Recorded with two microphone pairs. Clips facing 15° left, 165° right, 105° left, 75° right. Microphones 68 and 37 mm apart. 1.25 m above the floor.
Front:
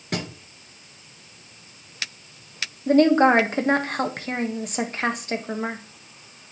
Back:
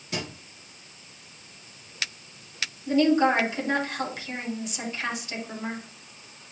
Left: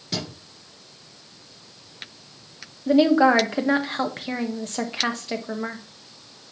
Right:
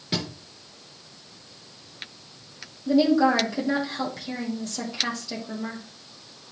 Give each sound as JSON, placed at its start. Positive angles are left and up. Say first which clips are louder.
{"t": 0.1, "sound": "a thud", "louder": "front 4 dB, right 1 dB", "azimuth_deg": -5, "distance_m": 2.5}
{"t": 2.9, "sound": "a woman speaking", "louder": "front 5 dB, left 3 dB", "azimuth_deg": 55, "distance_m": 1.4}